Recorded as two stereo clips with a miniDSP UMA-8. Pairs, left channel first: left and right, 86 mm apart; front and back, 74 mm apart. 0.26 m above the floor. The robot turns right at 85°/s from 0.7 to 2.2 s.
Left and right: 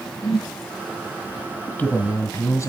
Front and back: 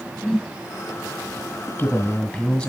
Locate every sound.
0.2 s a whoosh: 80° left, 1.1 m
1.7 s a man speaking: 30° left, 1.5 m; by 2.7 s 75° left, 1.5 m